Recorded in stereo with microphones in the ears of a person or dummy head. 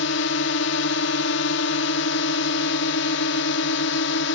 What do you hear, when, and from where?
0.0 s a drone: 60° left (ahead or behind)